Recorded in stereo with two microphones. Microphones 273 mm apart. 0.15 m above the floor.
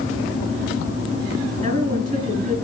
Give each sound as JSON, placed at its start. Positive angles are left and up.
{"t": 1.6, "sound": "a woman speaking", "side_deg": -20, "distance_m": 2.0}